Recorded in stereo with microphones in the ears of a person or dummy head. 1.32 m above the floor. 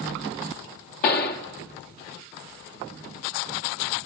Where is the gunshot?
55° left (ahead or behind), 1.5 m.